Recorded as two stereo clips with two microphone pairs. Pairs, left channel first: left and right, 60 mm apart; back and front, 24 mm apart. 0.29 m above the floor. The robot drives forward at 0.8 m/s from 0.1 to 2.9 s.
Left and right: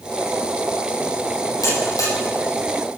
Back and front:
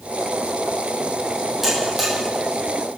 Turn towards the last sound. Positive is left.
turn(degrees=90)